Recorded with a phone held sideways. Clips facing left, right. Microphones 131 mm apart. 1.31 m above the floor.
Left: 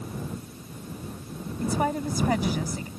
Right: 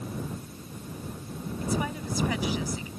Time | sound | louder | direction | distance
1.6 | a woman speaking | left 5 dB | 45° left (ahead or behind) | ?